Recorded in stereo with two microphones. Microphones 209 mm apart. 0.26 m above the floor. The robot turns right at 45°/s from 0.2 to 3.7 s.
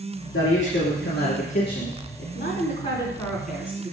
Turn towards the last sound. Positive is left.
turn(degrees=-170)